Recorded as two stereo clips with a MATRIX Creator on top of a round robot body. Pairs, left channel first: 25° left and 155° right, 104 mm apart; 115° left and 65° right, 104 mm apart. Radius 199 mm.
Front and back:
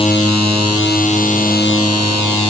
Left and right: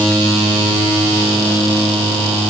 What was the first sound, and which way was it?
Only background noise.